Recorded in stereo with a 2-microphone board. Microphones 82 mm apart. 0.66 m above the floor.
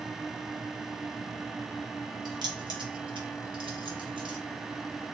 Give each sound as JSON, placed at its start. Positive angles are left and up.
{"t": 2.2, "sound": "keys jangling", "side_deg": -55, "distance_m": 1.2}